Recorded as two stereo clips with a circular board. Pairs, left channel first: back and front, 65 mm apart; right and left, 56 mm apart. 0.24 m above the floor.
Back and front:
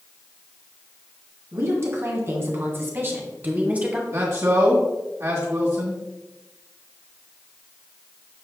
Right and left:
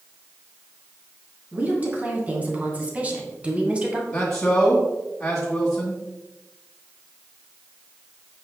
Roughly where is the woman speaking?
Ahead left.